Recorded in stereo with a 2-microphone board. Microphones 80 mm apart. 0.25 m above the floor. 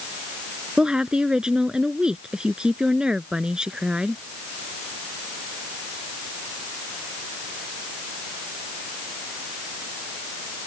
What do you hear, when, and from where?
0.8 s a woman speaking: 10° right (ahead or behind)